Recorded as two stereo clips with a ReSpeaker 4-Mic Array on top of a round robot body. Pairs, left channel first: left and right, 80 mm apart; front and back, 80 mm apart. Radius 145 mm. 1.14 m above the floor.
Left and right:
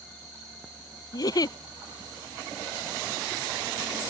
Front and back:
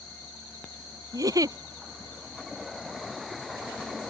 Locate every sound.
1.1 s a giggle: 135° left